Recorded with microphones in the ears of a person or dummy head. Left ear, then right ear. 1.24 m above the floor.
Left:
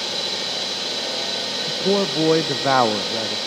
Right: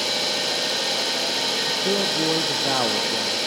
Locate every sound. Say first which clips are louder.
0.0 s an engine running: right 1 dB; 55° right (ahead or behind), 6.5 m
1.7 s a man speaking: left 1 dB; 70° left (ahead or behind), 0.5 m